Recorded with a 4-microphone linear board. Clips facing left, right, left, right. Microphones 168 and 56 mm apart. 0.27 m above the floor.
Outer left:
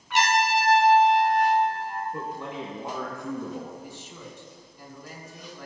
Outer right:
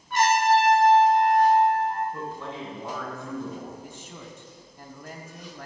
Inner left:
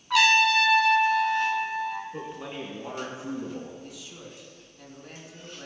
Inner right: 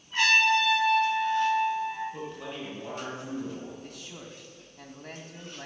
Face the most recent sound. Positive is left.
turn(degrees=-50)  # may be behind; listen again after turning